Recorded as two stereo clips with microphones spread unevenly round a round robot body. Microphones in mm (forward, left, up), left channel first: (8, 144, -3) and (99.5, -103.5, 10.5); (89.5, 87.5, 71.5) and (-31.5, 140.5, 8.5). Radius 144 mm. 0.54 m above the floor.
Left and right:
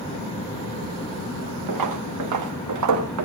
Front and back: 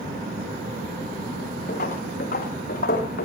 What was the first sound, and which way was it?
Footsteps, 70° right.